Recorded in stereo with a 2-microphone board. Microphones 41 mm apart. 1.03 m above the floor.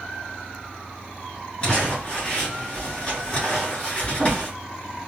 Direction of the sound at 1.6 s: 30° left (ahead or behind).